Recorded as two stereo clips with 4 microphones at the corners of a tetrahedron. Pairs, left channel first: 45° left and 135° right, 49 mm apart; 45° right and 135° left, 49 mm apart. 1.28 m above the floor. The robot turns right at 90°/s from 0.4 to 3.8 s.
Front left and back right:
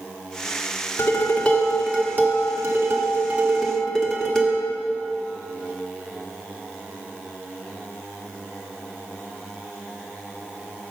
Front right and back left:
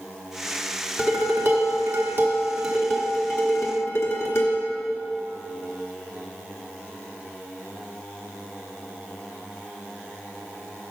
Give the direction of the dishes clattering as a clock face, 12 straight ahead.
10 o'clock.